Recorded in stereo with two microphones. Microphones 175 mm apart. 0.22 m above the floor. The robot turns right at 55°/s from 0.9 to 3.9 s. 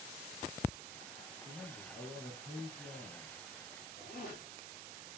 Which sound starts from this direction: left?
A zipper, at 4.0 s.